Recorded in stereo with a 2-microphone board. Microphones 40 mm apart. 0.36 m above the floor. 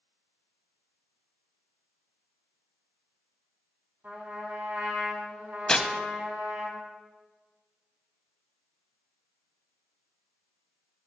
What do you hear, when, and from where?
4.0 s a trumpet: 60° right (ahead or behind), 2.5 m
5.7 s tearing paper: 20° left (ahead or behind), 0.7 m